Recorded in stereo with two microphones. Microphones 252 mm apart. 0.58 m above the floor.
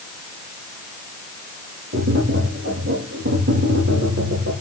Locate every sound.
1.9 s tapping: 80° right, 6 m